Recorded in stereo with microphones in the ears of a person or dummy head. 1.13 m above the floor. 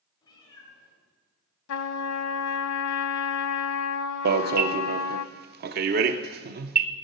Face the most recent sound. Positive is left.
turn(degrees=-50)  # may be behind; listen again after turning